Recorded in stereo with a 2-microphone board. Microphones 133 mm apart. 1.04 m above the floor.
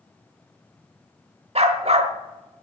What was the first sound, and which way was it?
A dog barking, 55° right (ahead or behind).